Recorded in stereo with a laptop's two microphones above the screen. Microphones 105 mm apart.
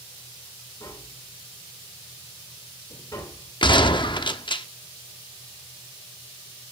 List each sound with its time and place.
0.8 s tapping: 40° left (ahead or behind), 2.5 m
3.6 s a gunshot: 50° left (ahead or behind), 0.6 m